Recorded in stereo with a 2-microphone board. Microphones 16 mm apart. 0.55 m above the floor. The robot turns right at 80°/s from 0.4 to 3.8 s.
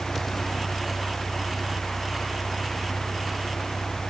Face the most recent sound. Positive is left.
turn(degrees=60)